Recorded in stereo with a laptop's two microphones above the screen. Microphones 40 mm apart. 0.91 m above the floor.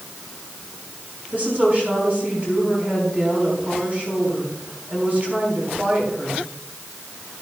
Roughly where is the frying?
I don't hear frying.